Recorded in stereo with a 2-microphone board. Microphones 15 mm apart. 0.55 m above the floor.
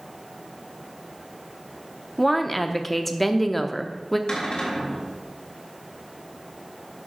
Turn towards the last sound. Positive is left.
turn(degrees=60)  # may be behind; listen again after turning